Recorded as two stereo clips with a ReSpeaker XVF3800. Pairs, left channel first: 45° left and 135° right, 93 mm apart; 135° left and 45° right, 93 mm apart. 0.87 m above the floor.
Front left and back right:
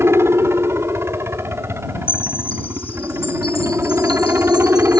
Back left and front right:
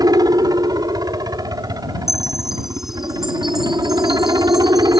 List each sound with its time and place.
0.0 s a helicopter: 80° right
2.1 s a chime: 40° left